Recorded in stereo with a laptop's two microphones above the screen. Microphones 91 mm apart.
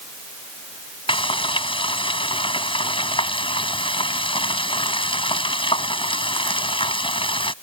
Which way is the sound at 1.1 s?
65° left (ahead or behind).